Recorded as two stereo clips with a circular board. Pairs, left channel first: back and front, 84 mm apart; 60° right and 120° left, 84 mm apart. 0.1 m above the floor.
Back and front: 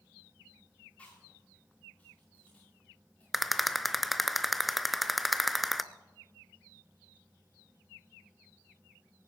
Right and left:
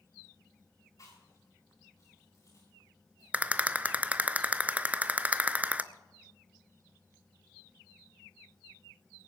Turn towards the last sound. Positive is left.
turn(degrees=90)